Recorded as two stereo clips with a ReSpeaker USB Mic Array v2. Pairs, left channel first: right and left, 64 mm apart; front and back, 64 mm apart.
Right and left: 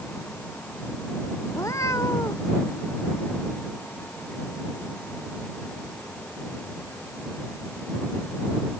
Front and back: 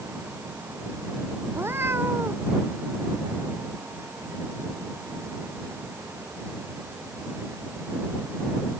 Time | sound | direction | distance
1.5 | a cat meowing | 125° right | ?